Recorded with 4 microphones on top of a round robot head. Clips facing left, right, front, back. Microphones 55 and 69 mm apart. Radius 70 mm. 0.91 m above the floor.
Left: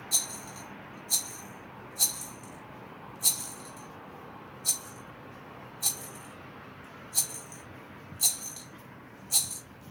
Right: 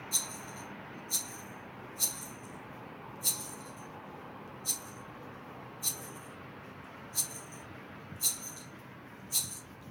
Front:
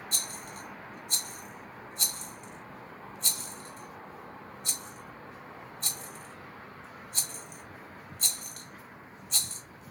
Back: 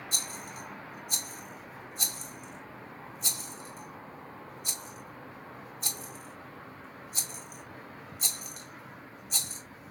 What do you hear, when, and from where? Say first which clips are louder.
0.1 s a rattle: left 4 dB, back 1 dB; 100° left, 1.0 m